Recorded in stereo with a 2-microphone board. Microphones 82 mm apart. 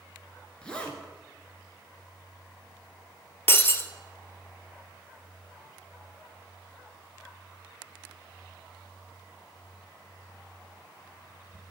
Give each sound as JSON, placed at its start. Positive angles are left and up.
{"t": 0.6, "sound": "a zipper", "side_deg": 10, "distance_m": 1.8}
{"t": 3.5, "sound": "breaking glass", "side_deg": 30, "distance_m": 0.7}